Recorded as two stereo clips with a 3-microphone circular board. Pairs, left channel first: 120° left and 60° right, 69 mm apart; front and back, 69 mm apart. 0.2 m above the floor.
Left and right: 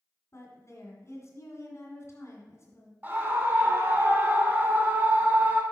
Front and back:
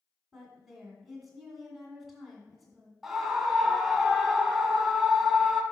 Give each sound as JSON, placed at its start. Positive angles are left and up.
{"t": 0.3, "sound": "a woman speaking", "azimuth_deg": 95, "distance_m": 1.9}
{"t": 3.0, "sound": "a scream", "azimuth_deg": -95, "distance_m": 1.1}